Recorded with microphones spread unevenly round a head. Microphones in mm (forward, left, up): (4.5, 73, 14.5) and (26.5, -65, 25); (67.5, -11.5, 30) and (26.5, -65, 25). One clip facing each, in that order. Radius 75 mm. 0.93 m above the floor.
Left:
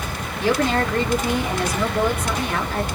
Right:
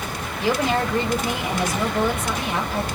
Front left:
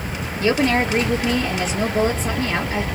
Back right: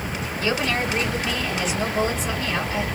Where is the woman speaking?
Straight ahead, 1.8 m.